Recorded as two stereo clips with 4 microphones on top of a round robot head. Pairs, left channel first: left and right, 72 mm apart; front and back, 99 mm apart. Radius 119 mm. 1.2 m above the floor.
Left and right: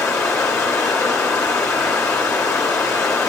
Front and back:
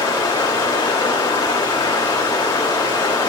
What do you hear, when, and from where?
0.0 s running water: 45° left, 1.6 m